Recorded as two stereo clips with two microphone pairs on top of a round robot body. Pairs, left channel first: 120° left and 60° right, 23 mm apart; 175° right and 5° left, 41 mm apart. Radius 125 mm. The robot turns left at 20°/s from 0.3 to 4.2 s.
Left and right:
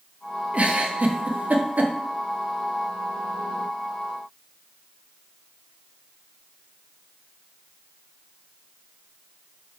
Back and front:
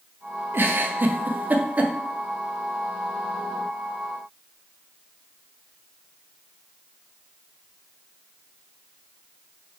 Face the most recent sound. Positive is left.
turn(degrees=-100)